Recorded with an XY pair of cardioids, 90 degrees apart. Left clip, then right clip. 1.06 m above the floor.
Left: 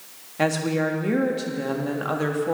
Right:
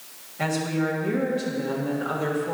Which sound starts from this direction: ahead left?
A woman speaking, at 0.4 s.